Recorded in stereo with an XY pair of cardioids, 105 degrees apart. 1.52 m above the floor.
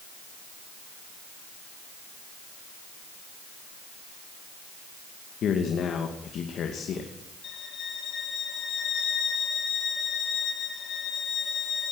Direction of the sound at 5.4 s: 60° left.